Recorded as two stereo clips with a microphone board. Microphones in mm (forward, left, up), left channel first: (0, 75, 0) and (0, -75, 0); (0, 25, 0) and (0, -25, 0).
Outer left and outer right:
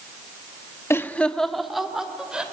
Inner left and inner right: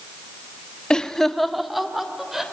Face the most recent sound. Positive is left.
turn(degrees=-5)  # may be behind; listen again after turning